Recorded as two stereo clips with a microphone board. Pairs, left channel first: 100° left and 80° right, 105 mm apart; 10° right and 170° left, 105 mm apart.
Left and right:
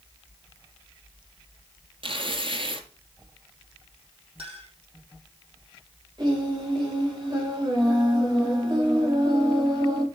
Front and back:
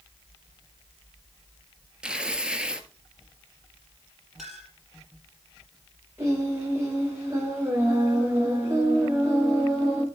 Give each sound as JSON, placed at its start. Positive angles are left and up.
{"t": 2.0, "sound": "tearing paper", "azimuth_deg": -110, "distance_m": 1.4}
{"t": 4.4, "sound": "a clink", "azimuth_deg": -105, "distance_m": 5.5}
{"t": 6.2, "sound": "singing", "azimuth_deg": -130, "distance_m": 8.0}